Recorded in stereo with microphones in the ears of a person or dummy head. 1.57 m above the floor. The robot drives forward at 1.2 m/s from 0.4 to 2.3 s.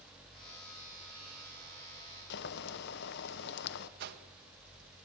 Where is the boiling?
60° left (ahead or behind), 1.3 m.